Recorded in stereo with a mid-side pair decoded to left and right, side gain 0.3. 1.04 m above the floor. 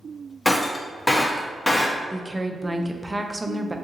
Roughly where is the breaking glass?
Ahead left.